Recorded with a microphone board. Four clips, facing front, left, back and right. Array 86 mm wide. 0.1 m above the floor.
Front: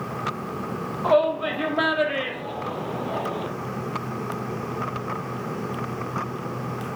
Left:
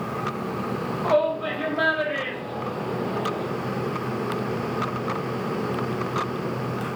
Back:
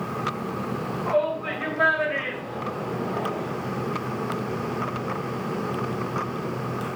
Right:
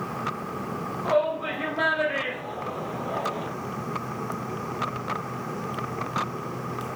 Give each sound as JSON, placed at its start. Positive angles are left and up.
{"t": 1.0, "sound": "a shout", "azimuth_deg": 20, "distance_m": 4.5}